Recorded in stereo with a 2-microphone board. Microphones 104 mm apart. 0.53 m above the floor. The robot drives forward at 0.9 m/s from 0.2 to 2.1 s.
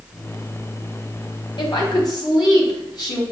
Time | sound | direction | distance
1.6 | a woman speaking | 55° left (ahead or behind) | 3 m